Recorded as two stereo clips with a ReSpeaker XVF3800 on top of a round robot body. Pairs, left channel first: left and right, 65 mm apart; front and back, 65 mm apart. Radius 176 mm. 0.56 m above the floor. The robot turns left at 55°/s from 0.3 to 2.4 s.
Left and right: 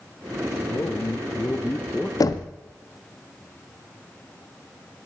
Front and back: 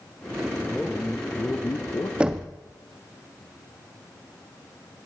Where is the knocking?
110° left, 0.6 m; by 2.5 s 100° left, 0.6 m.